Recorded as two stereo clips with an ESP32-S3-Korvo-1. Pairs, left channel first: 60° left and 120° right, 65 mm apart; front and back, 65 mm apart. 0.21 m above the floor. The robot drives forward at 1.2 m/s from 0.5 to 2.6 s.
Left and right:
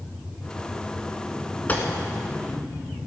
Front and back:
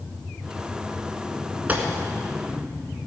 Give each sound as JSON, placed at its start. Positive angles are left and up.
{"t": 1.7, "sound": "a gunshot", "azimuth_deg": 120, "distance_m": 1.4}